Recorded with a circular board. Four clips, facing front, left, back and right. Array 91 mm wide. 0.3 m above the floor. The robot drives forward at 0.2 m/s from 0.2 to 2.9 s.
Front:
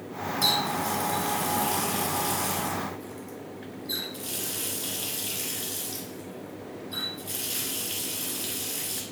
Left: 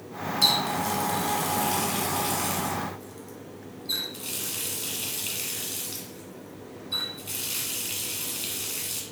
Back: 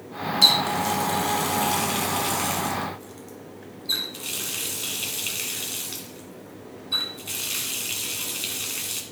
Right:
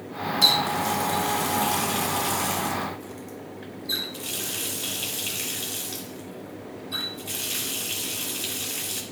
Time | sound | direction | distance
0.4 | a running tap | 175° right | 1.8 m